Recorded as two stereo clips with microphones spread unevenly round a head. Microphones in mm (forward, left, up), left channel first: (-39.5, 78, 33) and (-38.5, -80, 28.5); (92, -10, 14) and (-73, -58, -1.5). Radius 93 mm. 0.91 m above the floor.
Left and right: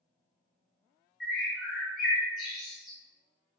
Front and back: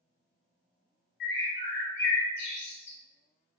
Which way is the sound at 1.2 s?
Straight ahead.